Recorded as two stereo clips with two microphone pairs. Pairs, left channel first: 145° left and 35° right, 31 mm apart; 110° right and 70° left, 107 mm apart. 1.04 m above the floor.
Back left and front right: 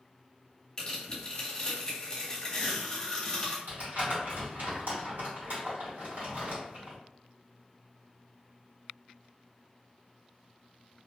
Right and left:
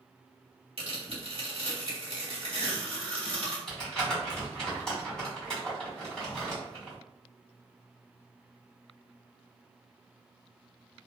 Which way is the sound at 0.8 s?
85° left.